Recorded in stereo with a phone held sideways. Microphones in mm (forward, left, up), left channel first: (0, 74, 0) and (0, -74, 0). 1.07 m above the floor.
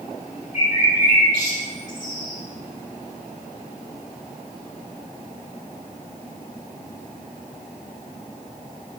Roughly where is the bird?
Left.